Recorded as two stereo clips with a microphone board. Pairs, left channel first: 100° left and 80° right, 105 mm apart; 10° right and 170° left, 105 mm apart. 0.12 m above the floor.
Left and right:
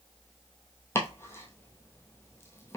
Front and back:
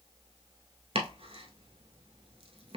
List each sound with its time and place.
0.9 s chopping: 165° left, 0.8 m